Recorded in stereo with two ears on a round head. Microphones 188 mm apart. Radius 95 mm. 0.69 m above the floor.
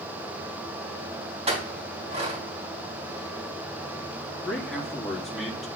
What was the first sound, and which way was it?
A clink, 30° right (ahead or behind).